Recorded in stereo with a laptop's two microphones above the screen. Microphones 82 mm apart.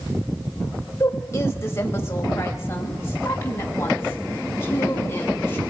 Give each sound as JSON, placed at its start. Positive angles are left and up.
{"t": 1.0, "sound": "a woman speaking", "side_deg": 30, "distance_m": 4.5}